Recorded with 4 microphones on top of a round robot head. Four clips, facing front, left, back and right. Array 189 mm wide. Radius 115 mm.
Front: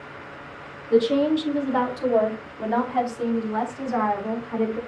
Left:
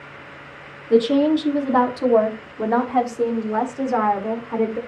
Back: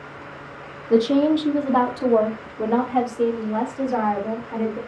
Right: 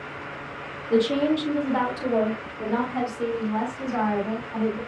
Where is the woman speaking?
150° left, 1.8 m; by 4.8 s 110° left, 3 m.